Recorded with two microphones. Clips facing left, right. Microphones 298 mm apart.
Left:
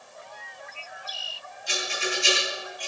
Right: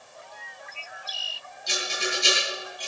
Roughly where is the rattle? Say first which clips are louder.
Even; right.